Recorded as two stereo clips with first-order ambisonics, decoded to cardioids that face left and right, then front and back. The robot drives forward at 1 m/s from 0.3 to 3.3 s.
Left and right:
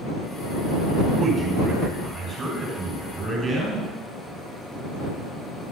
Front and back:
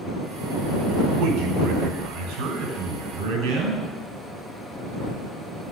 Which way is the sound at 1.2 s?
160° right.